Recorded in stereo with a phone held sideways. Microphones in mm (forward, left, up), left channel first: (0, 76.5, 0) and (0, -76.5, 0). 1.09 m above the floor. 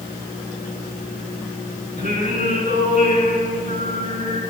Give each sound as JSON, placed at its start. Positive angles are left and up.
{"t": 2.0, "sound": "singing", "side_deg": -70, "distance_m": 5.0}